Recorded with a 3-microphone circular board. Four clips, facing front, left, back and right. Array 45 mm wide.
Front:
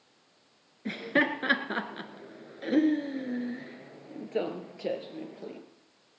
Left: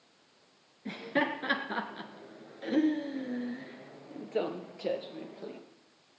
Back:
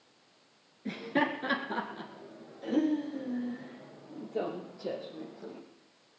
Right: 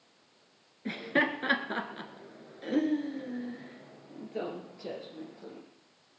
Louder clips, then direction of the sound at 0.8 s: Right 2 dB, front 3 dB; 35° right.